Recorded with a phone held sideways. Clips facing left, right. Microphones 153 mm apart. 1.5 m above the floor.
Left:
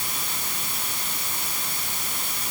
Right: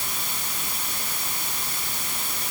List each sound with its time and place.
Only background noise.